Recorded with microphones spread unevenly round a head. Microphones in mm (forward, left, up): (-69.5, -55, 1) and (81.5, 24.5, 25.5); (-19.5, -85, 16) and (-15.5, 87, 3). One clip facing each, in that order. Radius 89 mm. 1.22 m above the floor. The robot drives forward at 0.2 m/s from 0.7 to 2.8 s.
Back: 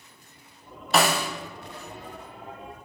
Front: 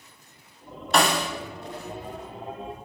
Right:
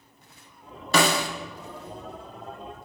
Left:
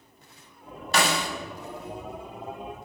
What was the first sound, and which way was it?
A snare drum, 65° right.